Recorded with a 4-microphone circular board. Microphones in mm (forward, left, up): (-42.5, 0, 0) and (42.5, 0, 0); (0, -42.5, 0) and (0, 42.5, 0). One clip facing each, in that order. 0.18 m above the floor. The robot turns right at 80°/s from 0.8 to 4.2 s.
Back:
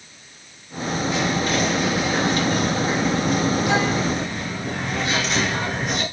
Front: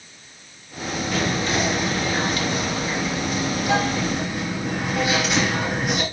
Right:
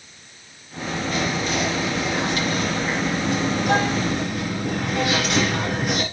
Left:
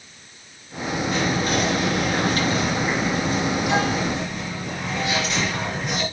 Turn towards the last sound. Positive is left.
turn(degrees=-85)